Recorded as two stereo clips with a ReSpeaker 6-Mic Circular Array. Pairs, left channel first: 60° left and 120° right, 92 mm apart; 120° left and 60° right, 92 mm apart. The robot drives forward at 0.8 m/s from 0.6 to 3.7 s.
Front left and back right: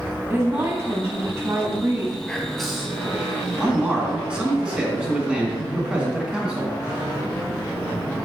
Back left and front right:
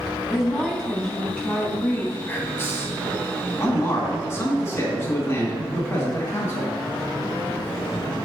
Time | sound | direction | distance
0.3 | a woman speaking | 150° right | 1.9 m
2.3 | whispering | 125° left | 1.2 m
3.6 | a man speaking | 165° left | 2.0 m